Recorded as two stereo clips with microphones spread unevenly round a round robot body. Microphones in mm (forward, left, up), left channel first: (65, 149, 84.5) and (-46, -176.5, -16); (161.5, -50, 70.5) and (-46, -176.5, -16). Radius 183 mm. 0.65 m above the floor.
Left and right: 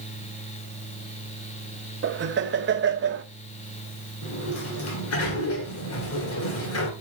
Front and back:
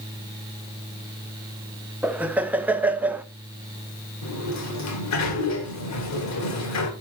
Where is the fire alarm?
No fire alarm in this recording.